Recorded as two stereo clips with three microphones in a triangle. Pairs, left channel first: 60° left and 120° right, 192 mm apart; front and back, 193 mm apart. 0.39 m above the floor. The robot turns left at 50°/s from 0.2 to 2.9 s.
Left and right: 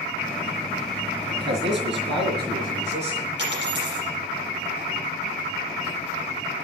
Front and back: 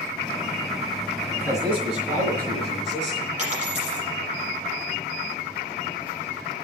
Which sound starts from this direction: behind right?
A dropped coin, at 3.4 s.